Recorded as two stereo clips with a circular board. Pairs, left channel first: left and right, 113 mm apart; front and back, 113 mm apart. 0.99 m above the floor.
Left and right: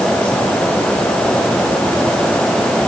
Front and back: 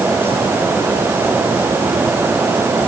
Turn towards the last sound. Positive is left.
No sound to turn to.